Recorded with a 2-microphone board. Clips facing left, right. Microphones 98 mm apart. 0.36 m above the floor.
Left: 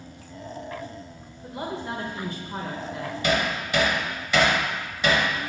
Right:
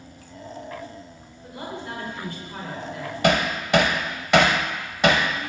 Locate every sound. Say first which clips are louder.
1.4 s a woman speaking: left 2 dB; 25° left (ahead or behind), 1.0 m
3.2 s hammering: right 4 dB; 65° right (ahead or behind), 0.7 m